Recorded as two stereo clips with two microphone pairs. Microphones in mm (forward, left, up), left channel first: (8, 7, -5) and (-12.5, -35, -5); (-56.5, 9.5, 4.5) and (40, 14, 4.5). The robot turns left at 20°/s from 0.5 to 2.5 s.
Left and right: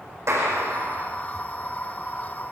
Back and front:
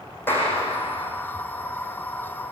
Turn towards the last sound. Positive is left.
turn(degrees=-150)